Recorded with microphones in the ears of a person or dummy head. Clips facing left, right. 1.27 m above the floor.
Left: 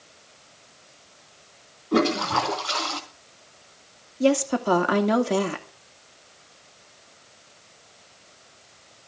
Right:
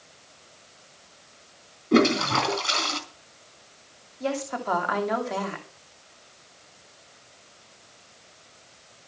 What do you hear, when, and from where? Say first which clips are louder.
1.9 s a toilet flushing: right 2 dB; 25° right (ahead or behind), 3 m
4.2 s a woman speaking: left 8 dB; 40° left (ahead or behind), 2.5 m